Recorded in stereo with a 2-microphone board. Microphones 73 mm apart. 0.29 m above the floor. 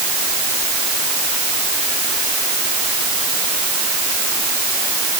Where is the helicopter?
No helicopter in this recording.